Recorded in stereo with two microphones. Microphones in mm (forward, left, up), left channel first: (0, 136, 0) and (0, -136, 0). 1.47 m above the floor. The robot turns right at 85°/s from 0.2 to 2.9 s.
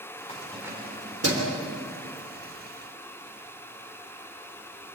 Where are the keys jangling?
25° left (ahead or behind), 3.5 m; by 1.5 s 75° right (ahead or behind), 3.5 m.